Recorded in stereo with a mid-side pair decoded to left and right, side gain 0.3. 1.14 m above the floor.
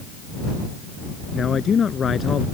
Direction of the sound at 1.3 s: 60° left.